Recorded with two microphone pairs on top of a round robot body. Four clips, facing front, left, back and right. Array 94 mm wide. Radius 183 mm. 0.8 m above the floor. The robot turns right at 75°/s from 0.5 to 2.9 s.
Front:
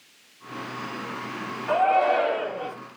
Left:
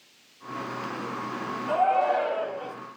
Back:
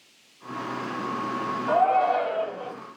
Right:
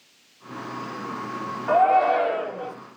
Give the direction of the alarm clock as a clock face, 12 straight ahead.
No alarm clock in this recording.